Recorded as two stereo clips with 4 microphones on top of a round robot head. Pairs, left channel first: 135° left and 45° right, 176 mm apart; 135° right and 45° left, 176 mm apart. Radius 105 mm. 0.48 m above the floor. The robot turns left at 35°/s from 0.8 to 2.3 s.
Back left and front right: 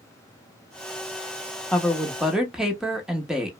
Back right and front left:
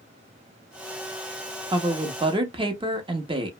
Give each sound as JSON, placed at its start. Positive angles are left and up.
{"t": 1.7, "sound": "a woman speaking", "azimuth_deg": 55, "distance_m": 0.8}